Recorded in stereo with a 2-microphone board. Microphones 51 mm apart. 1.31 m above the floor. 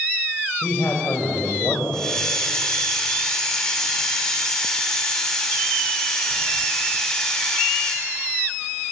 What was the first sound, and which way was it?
A man speaking, 50° left (ahead or behind).